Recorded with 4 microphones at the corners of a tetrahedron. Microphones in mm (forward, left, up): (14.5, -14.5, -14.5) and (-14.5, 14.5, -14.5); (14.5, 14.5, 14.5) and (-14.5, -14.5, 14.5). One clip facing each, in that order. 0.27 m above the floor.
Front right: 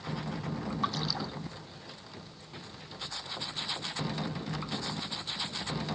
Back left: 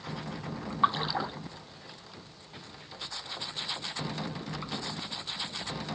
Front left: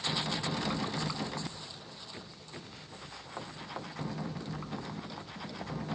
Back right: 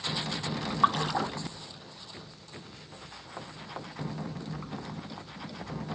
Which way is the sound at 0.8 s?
160° right.